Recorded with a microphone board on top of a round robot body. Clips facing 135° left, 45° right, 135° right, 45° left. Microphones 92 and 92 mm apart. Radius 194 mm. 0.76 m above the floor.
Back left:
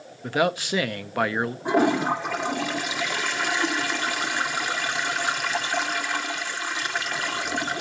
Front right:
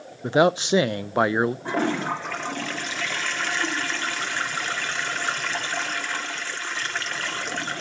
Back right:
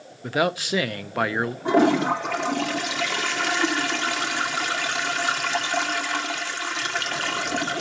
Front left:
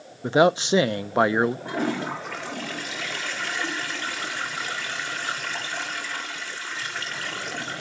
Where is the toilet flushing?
145° right, 1.7 m.